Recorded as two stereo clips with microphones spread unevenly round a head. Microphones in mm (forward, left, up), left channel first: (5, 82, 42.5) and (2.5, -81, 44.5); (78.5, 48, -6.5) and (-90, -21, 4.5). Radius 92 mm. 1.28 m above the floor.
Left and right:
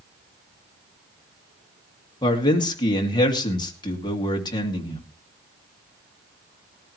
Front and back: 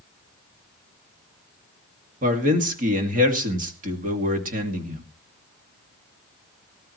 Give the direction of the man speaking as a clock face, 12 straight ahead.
7 o'clock.